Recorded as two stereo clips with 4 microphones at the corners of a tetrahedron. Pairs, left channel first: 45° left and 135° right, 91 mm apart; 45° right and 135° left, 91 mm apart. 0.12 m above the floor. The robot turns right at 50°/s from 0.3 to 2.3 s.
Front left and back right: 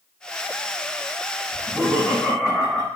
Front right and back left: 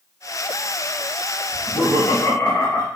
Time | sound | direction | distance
1.5 | laughter | 85° right | 1.7 m